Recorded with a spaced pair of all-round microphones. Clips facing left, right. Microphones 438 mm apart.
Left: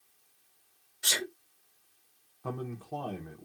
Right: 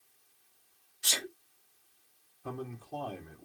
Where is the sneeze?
75° left (ahead or behind), 1.8 m.